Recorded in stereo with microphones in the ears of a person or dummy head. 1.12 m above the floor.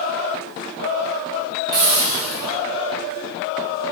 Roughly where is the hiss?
Right.